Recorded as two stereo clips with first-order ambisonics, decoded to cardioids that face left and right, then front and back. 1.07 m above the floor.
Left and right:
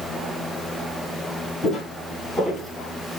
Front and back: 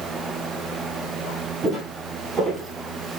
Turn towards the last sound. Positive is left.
turn(degrees=0)